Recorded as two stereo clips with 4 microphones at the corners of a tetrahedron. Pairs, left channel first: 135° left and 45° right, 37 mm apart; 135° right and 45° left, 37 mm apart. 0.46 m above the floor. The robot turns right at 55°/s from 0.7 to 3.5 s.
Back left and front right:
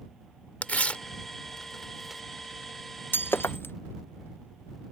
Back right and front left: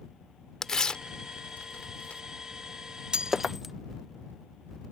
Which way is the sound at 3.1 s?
115° left.